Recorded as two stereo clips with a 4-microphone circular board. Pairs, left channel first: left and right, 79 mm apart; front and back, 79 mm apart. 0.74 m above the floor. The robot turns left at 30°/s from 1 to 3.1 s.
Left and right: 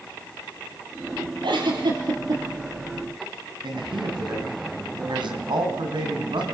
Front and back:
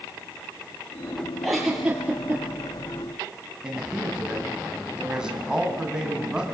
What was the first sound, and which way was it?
A giggle, 85° right.